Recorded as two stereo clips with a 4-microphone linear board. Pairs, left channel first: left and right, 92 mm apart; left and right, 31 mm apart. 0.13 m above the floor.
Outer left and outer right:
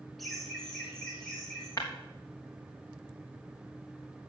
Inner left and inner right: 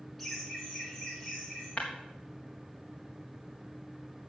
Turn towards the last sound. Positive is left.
turn(degrees=35)  # may be behind; listen again after turning